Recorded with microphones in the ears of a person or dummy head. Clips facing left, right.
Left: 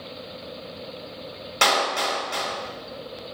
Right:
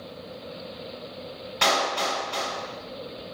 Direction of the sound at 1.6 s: 60° left (ahead or behind).